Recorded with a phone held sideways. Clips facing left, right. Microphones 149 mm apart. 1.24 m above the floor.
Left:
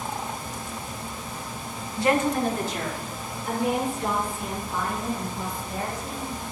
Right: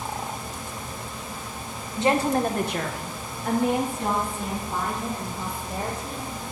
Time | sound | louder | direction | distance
2.0 | a woman speaking | right 1 dB | 20° right (ahead or behind) | 1.1 m